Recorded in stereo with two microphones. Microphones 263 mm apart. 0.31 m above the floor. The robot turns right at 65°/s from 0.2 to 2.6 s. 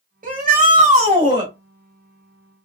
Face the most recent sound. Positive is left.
turn(degrees=50)